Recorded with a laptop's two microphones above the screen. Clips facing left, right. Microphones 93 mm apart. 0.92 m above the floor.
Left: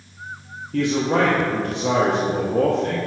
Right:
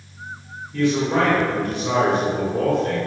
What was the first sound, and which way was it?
A man speaking, 65° left (ahead or behind).